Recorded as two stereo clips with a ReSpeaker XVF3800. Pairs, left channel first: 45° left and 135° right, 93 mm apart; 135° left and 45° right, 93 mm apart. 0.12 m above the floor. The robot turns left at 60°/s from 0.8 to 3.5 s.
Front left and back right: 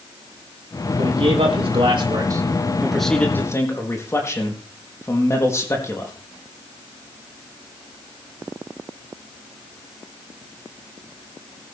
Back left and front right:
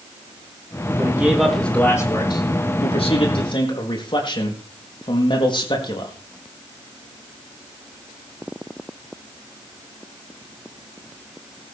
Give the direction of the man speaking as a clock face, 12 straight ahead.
3 o'clock.